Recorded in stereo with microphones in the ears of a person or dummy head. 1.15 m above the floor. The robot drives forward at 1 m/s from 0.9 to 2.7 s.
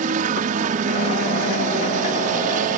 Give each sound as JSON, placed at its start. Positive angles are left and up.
{"t": 0.0, "sound": "a helicopter", "side_deg": -45}